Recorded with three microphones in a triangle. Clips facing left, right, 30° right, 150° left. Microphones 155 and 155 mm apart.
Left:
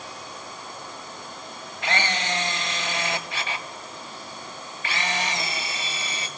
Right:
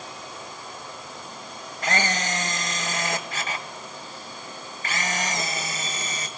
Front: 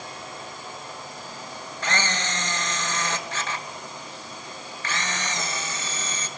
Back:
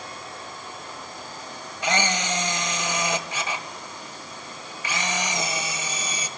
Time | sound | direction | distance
1.8 | a camera shutter | 130° right | 2.5 m